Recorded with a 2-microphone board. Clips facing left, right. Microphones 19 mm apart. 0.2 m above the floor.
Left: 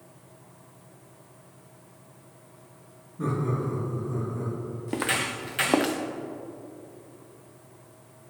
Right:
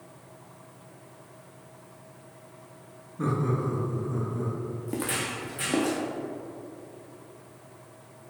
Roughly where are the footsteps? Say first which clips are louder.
Left 4 dB; left.